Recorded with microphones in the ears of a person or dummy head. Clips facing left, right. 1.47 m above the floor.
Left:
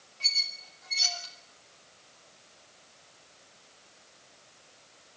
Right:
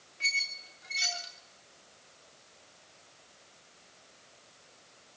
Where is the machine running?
I don't hear a machine running.